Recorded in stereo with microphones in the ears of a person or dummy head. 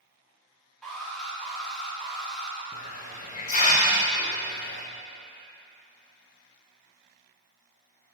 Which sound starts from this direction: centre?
An alarm, at 0.8 s.